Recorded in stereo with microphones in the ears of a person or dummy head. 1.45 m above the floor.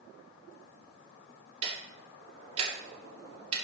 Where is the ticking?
35° right (ahead or behind), 2 m.